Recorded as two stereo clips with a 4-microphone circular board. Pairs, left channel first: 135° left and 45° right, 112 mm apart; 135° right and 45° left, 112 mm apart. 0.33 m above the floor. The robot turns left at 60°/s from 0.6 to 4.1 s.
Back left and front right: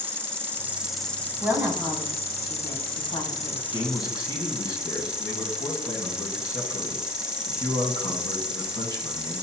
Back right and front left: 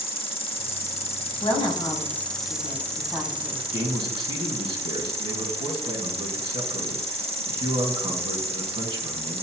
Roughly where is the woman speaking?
Right.